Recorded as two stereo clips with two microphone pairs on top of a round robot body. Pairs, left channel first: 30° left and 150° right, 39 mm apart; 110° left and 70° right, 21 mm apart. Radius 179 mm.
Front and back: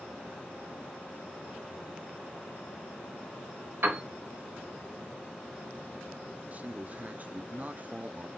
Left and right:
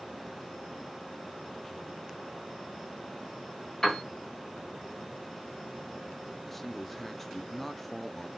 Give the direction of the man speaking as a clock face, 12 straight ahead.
6 o'clock.